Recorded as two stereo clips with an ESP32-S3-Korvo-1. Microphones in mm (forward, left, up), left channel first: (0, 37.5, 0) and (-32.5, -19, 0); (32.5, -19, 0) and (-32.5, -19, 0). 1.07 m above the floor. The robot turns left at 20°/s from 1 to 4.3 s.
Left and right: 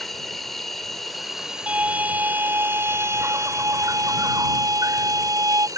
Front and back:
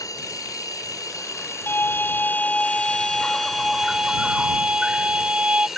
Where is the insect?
30° right; by 5.8 s 95° right.